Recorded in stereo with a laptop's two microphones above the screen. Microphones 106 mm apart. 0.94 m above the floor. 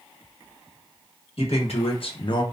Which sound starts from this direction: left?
A man speaking, at 1.4 s.